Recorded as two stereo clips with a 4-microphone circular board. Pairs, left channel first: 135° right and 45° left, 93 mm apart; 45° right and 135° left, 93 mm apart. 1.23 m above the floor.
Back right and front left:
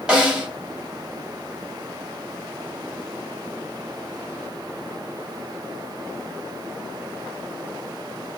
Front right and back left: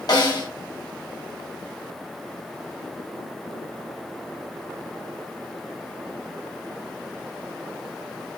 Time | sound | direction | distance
0.1 | a snare drum | 35° right | 1.2 m